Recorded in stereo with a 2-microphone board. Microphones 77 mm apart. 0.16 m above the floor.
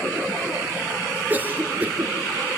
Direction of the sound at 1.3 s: 25° right (ahead or behind).